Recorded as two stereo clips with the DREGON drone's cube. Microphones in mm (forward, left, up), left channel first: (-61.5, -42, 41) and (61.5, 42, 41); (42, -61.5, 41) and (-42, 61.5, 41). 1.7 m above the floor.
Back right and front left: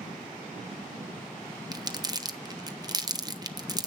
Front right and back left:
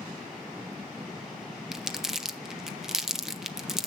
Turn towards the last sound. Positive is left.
turn(degrees=45)